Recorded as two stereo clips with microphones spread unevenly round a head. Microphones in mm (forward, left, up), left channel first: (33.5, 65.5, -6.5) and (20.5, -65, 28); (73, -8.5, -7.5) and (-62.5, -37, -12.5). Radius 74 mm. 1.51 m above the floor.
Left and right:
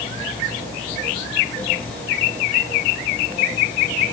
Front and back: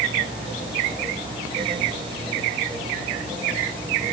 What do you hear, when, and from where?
Only background noise.